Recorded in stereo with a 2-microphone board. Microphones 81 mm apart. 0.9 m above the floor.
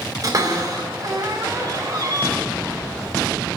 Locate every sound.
0.2 s a cupboard door: 50° right (ahead or behind), 4 m